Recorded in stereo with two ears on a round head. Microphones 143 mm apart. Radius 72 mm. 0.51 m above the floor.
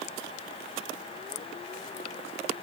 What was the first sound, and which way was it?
Only background noise.